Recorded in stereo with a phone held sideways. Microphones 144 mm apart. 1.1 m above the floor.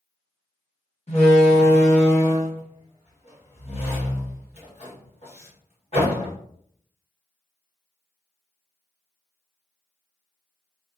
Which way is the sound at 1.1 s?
50° left (ahead or behind).